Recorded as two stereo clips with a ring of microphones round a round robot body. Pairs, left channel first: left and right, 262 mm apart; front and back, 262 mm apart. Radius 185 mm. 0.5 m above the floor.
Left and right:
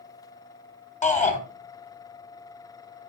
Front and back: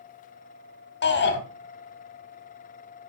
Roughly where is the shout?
Ahead left.